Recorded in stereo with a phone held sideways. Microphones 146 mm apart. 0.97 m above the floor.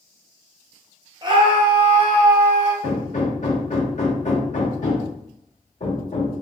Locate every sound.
1.2 s a scream: 30° right (ahead or behind), 0.7 m; by 2.7 s 50° right (ahead or behind), 1.1 m
2.8 s hammering: 60° left (ahead or behind), 1.0 m